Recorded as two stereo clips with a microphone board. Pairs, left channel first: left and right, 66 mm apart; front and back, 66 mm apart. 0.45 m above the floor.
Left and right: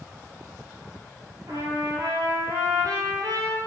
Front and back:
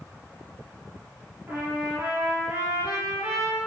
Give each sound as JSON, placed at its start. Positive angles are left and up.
{"t": 1.5, "sound": "a trumpet", "azimuth_deg": -130, "distance_m": 3.5}